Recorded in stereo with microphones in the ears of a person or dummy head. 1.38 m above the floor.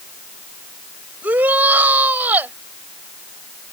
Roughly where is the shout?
Centre.